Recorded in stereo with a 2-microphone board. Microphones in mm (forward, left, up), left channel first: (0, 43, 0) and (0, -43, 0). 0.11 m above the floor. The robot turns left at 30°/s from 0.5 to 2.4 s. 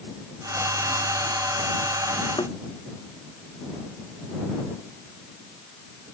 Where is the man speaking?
No man speaking in this recording.